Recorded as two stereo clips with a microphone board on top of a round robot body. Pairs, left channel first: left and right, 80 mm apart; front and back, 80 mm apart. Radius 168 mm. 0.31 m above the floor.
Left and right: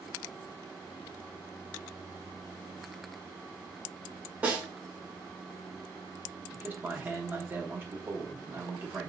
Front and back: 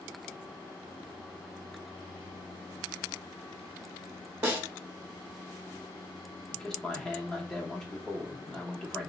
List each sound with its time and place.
4.4 s a snare drum: 140° right, 1.4 m
6.5 s a man speaking: 75° right, 1.1 m